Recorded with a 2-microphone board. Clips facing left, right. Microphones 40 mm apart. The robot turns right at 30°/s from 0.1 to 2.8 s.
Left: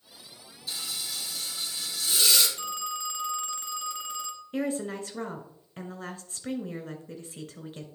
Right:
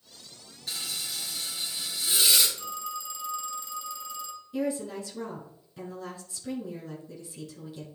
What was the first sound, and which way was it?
Frying, 65° right.